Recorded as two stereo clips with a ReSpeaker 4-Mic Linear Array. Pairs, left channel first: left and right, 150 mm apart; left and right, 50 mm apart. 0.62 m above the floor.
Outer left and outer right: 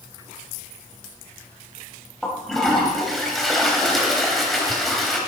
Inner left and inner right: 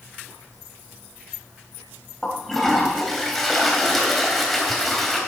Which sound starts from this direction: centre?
A toilet flushing, at 2.2 s.